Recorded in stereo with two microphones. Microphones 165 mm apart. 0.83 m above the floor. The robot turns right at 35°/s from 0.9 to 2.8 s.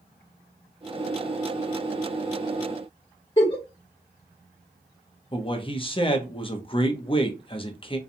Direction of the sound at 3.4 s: 35° left (ahead or behind).